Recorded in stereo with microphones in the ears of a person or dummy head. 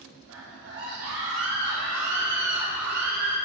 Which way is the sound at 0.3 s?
80° right.